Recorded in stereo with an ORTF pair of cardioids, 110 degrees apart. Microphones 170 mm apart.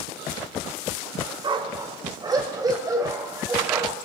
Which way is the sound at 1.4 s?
30° right.